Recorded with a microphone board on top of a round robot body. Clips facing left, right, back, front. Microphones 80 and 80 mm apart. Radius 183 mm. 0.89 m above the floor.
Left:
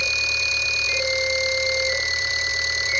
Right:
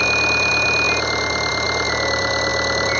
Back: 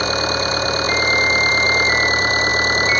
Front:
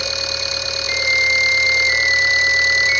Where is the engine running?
130° right.